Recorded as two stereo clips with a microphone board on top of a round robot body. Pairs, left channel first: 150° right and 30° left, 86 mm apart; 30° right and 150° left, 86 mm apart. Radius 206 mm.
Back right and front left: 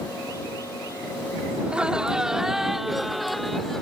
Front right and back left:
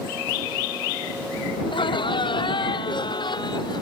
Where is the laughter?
50° right; by 3.8 s 65° right.